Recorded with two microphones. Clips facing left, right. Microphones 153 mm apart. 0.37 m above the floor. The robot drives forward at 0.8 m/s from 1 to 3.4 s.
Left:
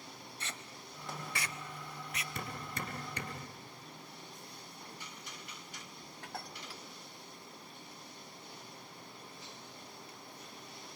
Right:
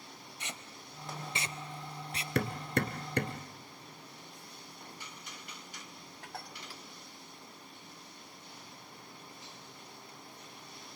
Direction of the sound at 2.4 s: 80° right.